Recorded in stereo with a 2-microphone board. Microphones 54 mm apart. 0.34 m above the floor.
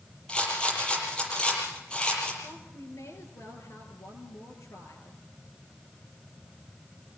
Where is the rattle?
20° left (ahead or behind), 7.5 m.